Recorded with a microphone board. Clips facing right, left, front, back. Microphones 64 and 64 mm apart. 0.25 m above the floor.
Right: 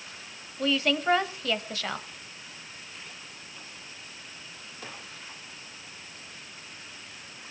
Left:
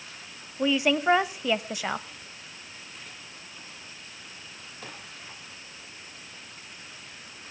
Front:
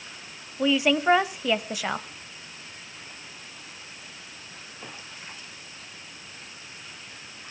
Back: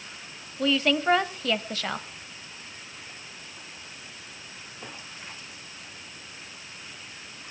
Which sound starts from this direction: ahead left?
A woman speaking, at 0.6 s.